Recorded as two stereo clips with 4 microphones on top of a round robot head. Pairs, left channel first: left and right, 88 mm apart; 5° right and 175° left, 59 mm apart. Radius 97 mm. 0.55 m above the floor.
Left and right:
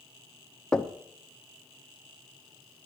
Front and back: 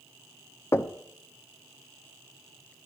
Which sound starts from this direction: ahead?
Knocking, at 0.7 s.